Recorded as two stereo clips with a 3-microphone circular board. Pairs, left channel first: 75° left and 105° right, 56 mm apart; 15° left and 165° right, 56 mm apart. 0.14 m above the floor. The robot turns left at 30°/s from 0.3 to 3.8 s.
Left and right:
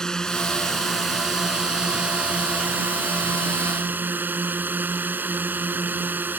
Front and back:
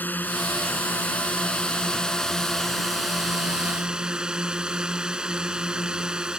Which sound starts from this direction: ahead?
A drone, at 0.0 s.